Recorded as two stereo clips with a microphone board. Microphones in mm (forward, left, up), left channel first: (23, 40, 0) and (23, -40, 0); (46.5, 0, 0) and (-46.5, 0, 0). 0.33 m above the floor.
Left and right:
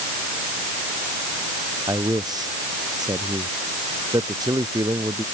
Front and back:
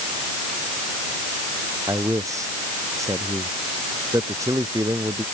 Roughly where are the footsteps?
I don't hear footsteps.